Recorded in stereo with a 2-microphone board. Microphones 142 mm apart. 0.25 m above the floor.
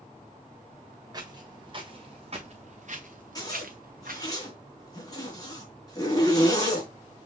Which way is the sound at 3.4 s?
25° left (ahead or behind).